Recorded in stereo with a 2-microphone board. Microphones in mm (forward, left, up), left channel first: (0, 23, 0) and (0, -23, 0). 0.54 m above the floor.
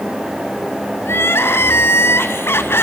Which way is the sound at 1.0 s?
60° left (ahead or behind).